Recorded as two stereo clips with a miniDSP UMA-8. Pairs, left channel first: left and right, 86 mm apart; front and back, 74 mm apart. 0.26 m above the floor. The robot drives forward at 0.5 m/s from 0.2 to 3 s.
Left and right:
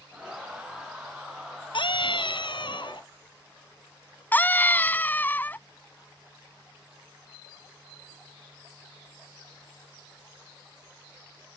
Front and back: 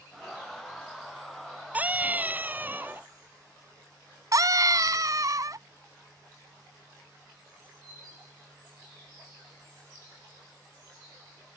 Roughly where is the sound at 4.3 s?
Behind left.